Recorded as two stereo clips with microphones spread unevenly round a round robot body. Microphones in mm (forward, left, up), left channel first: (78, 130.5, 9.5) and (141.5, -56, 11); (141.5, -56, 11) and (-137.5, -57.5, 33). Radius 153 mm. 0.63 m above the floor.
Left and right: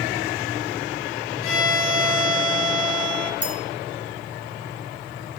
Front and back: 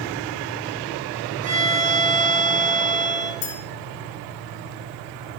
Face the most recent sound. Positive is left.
turn(degrees=10)